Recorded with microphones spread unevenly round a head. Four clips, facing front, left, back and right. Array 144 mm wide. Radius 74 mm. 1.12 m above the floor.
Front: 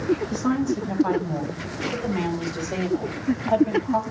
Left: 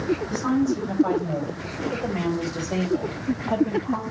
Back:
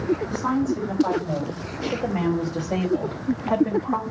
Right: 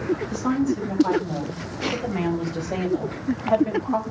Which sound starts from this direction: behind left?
A woman speaking, at 0.3 s.